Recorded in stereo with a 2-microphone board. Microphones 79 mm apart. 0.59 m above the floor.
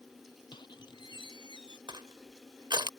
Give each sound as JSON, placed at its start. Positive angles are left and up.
{"t": 0.5, "sound": "a squeak", "side_deg": 80}
{"t": 1.9, "sound": "crushing", "side_deg": -80}